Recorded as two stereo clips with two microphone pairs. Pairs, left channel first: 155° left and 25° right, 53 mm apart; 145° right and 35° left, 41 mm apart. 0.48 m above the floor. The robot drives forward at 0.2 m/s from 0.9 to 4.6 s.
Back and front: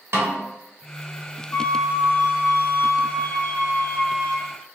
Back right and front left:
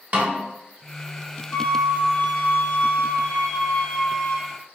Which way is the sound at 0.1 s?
Straight ahead.